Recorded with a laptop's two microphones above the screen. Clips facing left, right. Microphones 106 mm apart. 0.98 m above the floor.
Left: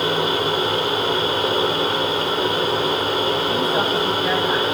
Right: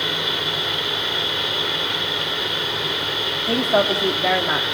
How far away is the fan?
About 2 m.